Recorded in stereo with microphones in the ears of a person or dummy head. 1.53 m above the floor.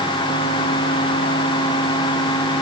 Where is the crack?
No crack in this recording.